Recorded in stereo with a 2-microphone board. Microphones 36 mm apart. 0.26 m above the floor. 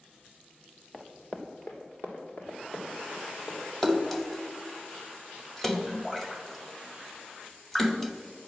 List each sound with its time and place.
0.9 s running footsteps: 20° left (ahead or behind), 1.7 m; by 3.7 s 70° left (ahead or behind), 5 m
3.8 s a splash: 10° left (ahead or behind), 0.8 m